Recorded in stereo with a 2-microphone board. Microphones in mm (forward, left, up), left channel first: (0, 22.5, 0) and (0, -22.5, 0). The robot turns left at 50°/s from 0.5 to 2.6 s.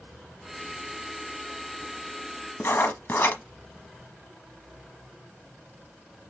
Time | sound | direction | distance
2.6 | writing | 50° left (ahead or behind) | 1.0 m